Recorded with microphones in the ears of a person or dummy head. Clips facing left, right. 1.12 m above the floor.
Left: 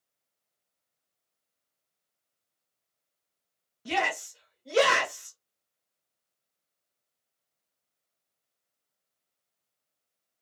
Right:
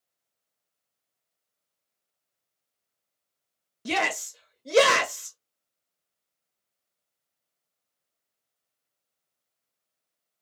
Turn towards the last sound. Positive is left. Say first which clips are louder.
# right 2 dB
turn(degrees=-50)  # may be behind; listen again after turning